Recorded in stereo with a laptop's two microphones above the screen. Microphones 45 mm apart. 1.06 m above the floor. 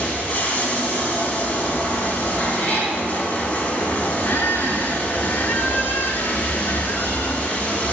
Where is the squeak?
60° left (ahead or behind), 1.7 m.